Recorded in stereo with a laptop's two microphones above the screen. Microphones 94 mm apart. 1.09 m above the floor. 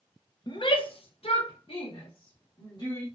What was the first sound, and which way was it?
A shout, 50° left (ahead or behind).